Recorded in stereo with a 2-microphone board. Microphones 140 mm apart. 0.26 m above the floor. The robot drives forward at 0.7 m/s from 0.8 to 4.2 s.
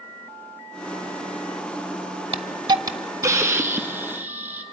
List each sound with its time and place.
2.3 s a hiss: 45° right (ahead or behind), 0.6 m; by 4.6 s 15° right (ahead or behind), 1.7 m